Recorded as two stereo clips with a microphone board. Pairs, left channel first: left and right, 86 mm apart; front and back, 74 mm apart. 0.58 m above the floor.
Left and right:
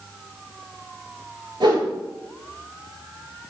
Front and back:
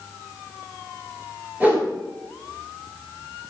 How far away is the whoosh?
About 4 m.